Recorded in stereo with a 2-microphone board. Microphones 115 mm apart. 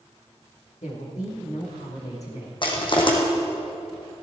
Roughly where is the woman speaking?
Left.